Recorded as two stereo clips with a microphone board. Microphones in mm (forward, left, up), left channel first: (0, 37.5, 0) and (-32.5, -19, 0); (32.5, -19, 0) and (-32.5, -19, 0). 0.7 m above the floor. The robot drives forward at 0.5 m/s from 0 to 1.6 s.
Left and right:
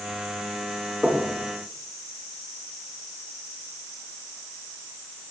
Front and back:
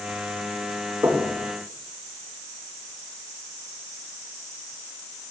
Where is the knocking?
165° left, 1.9 m.